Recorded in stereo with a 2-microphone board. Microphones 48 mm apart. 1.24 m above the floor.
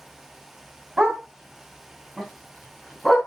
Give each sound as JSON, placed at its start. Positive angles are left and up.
{"t": 1.0, "sound": "a dog barking", "side_deg": -20, "distance_m": 2.5}